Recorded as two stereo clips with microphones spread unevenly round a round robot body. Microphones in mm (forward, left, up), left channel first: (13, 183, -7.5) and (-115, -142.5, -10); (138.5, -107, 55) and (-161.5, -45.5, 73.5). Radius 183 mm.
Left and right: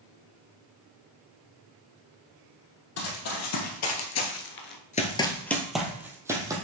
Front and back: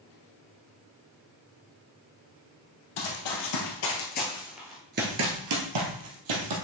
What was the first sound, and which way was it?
Running footsteps, 20° left.